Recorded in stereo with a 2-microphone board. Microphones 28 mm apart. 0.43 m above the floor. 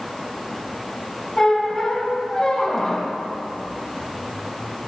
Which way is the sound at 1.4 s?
25° left (ahead or behind).